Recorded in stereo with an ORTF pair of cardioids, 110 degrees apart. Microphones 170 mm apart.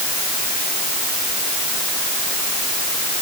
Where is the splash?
No splash in this recording.